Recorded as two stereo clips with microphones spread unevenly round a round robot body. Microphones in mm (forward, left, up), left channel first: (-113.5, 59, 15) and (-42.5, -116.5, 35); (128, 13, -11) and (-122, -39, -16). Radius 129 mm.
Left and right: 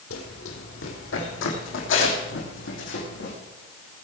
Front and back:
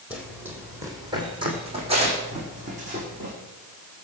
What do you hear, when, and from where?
0.1 s running footsteps: 105° left, 2.5 m; by 3.4 s 130° left, 4 m